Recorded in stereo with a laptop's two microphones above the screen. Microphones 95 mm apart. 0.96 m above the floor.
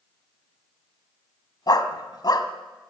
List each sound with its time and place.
1.7 s a dog barking: 45° left (ahead or behind), 1.9 m